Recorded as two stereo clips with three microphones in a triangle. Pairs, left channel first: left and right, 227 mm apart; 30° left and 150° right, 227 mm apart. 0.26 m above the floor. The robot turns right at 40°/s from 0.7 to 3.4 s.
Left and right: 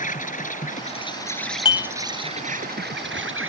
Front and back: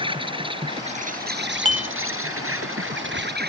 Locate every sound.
0.0 s an insect: 145° left; by 3.5 s 110° right
1.6 s dishes clattering: 150° left; by 1.9 s 160° left